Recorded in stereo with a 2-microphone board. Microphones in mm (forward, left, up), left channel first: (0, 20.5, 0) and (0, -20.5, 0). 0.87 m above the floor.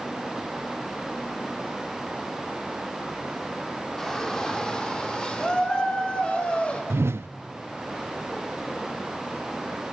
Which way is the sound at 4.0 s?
10° left (ahead or behind).